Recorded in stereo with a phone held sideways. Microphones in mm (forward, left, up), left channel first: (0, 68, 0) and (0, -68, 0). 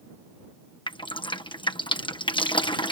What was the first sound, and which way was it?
Dripping, 35° left (ahead or behind).